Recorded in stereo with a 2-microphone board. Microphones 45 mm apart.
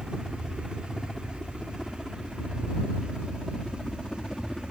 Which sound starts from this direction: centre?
A helicopter, at 0.0 s.